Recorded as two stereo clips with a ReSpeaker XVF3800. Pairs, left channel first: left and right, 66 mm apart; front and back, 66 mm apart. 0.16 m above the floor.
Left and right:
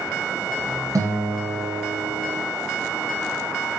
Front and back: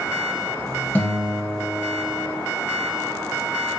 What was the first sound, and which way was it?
A guitar, 65° right.